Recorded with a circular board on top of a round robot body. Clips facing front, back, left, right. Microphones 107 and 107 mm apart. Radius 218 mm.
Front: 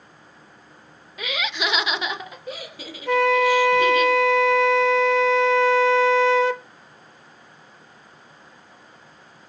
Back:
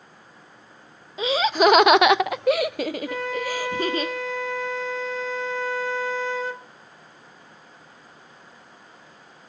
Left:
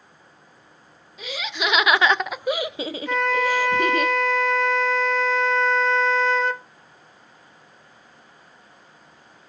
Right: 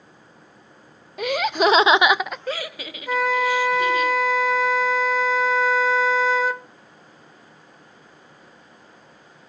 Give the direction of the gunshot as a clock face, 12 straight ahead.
I don't hear a gunshot.